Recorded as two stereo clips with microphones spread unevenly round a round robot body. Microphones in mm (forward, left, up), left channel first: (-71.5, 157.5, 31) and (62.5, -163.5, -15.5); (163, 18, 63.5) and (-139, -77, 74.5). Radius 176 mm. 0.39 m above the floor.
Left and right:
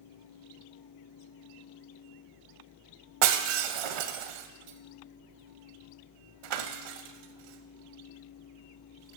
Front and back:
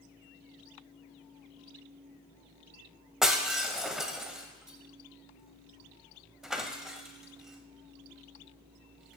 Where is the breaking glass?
75° right, 0.6 m.